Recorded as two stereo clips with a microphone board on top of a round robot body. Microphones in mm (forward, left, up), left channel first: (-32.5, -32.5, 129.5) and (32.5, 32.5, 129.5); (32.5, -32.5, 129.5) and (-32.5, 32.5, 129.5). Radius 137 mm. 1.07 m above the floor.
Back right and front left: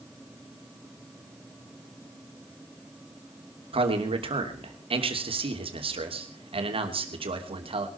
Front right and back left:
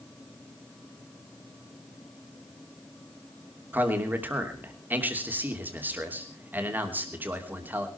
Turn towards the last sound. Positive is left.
turn(degrees=65)